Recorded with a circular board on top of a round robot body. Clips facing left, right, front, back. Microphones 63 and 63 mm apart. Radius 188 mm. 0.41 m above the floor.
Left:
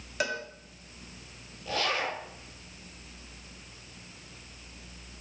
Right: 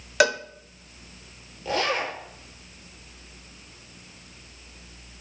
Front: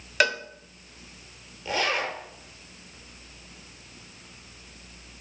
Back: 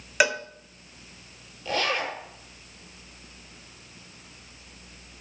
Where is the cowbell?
100° right, 1.0 m.